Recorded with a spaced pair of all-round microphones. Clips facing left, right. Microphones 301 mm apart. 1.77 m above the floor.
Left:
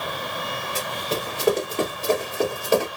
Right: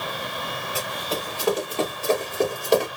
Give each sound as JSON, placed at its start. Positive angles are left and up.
{"t": 0.8, "sound": "running footsteps", "side_deg": 30, "distance_m": 2.0}